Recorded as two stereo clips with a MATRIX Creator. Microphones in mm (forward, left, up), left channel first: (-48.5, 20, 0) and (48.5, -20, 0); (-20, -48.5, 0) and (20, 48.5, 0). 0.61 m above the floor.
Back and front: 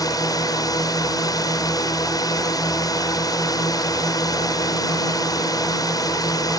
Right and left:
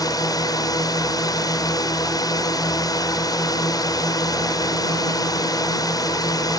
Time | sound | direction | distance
0.0 | a drone | 155° right | ?